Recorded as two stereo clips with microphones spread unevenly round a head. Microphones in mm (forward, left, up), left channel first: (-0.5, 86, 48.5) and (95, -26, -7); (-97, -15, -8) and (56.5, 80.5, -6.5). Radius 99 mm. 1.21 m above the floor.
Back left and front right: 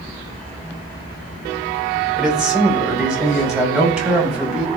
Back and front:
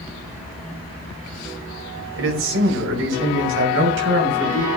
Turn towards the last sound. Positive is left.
turn(degrees=35)